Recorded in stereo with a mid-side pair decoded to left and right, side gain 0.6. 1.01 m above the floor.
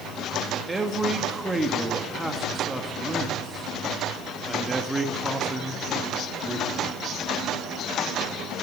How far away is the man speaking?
About 1.6 m.